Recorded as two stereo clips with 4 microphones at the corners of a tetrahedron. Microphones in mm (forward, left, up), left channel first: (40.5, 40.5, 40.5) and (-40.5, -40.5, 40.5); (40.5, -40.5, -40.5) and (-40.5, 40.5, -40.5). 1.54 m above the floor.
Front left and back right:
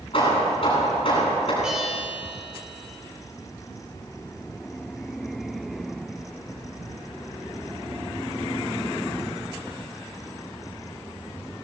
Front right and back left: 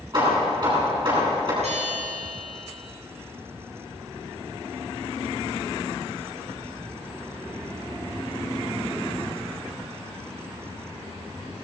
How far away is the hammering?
About 10 m.